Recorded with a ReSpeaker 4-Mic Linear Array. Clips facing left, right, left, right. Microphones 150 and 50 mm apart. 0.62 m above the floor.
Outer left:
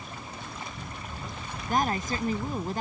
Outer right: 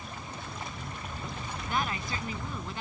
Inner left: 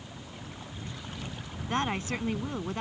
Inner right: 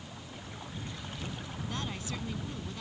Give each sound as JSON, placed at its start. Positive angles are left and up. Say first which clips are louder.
{"t": 1.7, "sound": "a woman speaking", "louder": "outer left 6 dB, inner left 10 dB", "side_deg": 45}